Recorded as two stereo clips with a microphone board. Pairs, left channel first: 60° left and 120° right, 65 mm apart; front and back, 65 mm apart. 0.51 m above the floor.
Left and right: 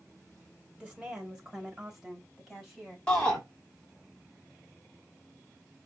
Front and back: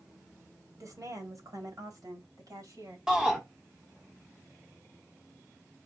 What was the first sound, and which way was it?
A woman speaking, 170° left.